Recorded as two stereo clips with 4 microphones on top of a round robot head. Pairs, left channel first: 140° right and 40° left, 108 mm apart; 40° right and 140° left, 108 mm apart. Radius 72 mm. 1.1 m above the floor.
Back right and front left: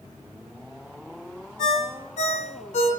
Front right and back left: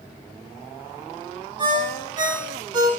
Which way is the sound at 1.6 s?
165° right.